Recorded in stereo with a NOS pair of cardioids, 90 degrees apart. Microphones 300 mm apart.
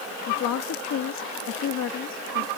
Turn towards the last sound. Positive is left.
turn(degrees=60)